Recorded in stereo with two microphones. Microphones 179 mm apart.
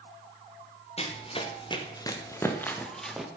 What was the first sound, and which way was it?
Running footsteps, 35° left (ahead or behind).